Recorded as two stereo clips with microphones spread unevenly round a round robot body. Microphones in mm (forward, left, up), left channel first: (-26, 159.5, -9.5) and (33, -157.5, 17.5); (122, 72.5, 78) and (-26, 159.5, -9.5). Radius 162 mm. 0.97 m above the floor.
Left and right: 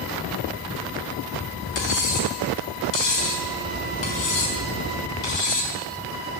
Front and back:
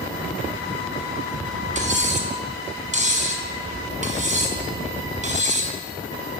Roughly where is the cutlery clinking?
Left.